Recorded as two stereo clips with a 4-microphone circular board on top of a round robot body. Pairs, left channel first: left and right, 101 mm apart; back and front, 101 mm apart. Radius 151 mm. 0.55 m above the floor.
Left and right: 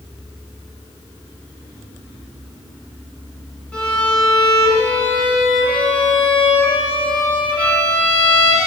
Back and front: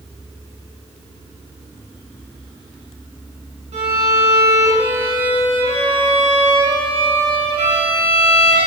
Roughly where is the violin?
Ahead.